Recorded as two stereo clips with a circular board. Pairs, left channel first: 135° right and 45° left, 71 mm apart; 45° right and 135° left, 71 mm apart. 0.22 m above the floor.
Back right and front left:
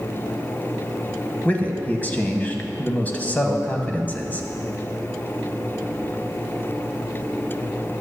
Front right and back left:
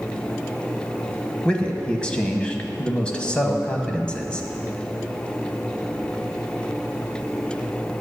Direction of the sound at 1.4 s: 100° right.